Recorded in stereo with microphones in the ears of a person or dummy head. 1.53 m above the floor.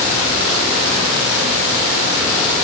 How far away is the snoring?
No snoring in this recording.